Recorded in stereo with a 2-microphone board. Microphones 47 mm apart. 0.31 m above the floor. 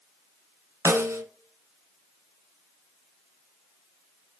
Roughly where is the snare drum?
Right.